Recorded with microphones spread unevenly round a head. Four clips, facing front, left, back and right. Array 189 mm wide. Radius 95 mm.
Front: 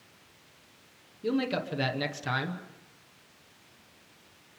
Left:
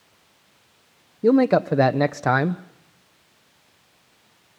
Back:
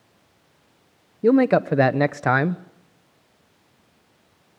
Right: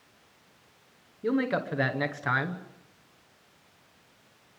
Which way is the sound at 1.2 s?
130° left.